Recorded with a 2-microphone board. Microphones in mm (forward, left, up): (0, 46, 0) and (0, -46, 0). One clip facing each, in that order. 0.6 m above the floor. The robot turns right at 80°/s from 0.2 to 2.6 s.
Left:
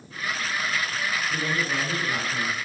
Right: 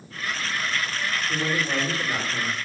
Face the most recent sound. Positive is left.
turn(degrees=-40)